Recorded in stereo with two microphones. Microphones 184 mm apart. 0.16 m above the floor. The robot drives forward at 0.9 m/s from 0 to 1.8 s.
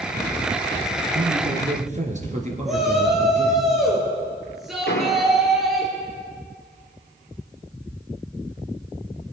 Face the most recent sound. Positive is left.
turn(degrees=70)  # may be behind; listen again after turning